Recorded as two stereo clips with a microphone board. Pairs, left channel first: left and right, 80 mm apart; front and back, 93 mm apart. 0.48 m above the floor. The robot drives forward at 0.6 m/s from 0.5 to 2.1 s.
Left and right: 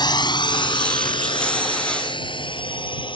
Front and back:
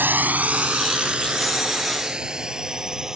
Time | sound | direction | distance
0.0 | a drone | 110° left | ?